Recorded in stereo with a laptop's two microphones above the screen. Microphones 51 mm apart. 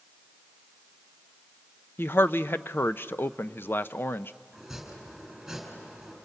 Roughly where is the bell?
No bell in this recording.